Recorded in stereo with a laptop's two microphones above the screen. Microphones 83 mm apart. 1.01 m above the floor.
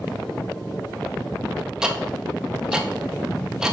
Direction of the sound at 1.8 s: 10° right (ahead or behind).